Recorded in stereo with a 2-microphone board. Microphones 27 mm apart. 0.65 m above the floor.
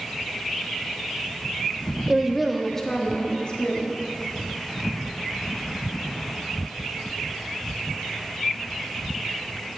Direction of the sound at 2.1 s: 20° right (ahead or behind).